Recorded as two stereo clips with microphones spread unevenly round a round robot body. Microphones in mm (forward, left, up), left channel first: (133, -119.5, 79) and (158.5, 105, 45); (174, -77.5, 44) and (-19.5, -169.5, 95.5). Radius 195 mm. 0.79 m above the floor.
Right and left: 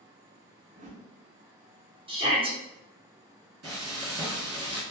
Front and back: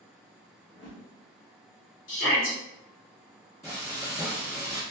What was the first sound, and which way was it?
A whoosh, 60° left.